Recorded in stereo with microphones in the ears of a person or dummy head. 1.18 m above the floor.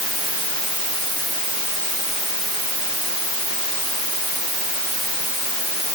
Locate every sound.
Only background noise.